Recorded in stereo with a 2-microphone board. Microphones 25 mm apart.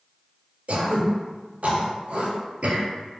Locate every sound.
0.7 s throat clearing: 70° right (ahead or behind), 0.6 m